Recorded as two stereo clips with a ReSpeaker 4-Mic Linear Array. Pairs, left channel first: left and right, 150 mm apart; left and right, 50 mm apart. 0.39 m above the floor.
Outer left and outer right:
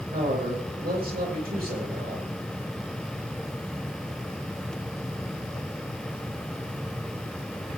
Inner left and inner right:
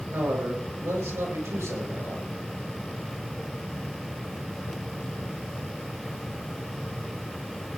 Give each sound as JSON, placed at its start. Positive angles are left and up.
{"t": 0.1, "sound": "a man speaking", "side_deg": -75, "distance_m": 7.5}